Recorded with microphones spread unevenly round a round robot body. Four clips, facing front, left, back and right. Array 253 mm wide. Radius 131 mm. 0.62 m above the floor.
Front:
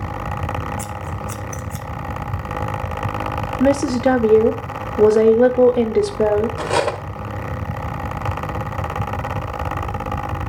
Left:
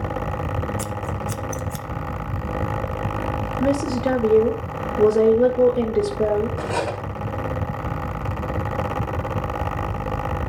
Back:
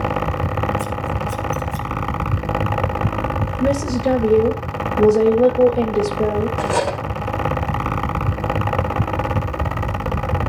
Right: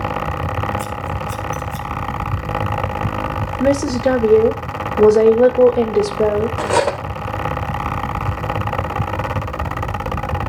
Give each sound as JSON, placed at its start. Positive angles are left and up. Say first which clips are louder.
{"t": 0.8, "sound": "scissors", "louder": "right 3 dB, back 5 dB", "azimuth_deg": 65, "distance_m": 0.8}
{"t": 3.6, "sound": "a woman speaking", "louder": "right 5 dB, front 4 dB", "azimuth_deg": -40, "distance_m": 1.7}
{"t": 6.6, "sound": "cutlery clinking", "louder": "right 8 dB, even", "azimuth_deg": -55, "distance_m": 1.3}